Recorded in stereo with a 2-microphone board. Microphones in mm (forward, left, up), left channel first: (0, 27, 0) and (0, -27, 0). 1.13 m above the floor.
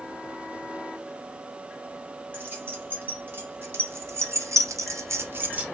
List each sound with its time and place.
2.3 s keys jangling: 35° right (ahead or behind), 2.5 m; by 5.7 s 25° right (ahead or behind), 0.9 m